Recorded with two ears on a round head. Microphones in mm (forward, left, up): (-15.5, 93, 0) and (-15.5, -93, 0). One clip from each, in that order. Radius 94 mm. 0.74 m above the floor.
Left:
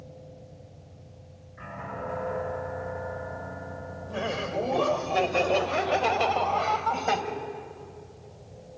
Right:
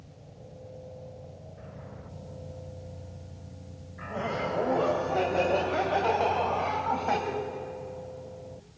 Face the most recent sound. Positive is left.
turn(degrees=70)  # may be behind; listen again after turning